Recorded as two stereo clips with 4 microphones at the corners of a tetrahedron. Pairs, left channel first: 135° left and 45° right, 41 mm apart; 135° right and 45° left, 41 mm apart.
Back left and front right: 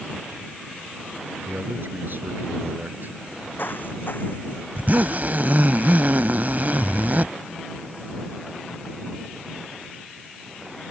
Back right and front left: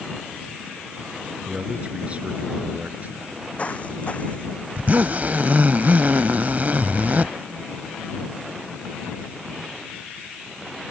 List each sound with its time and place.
1.4 s a man speaking: 15° right; by 3.1 s 5° right
3.2 s footsteps: 170° left
4.8 s a zipper: straight ahead